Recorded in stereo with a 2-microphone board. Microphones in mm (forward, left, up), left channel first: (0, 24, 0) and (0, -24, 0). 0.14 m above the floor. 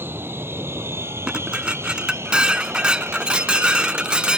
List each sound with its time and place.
0.0 s an aircraft: 50° right (ahead or behind); by 4.4 s 55° right (ahead or behind)
1.3 s dishes clattering: 20° right (ahead or behind)